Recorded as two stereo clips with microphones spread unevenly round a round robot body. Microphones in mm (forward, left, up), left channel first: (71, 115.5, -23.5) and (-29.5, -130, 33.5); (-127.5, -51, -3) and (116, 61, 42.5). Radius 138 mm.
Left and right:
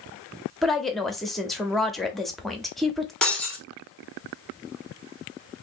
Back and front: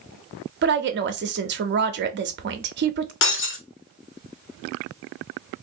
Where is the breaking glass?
165° left, 0.9 m.